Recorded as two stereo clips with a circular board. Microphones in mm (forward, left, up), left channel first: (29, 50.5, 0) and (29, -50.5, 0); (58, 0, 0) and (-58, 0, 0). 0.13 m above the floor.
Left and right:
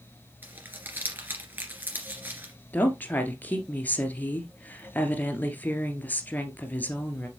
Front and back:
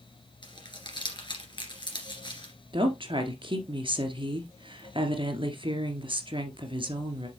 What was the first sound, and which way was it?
Crumpling, 25° right.